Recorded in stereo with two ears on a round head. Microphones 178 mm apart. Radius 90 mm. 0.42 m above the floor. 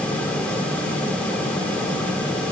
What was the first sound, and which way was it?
Only background noise.